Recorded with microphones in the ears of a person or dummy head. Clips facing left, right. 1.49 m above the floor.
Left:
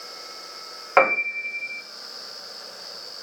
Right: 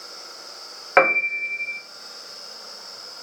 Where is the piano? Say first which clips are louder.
Right 1 dB; 25° right (ahead or behind), 0.6 m.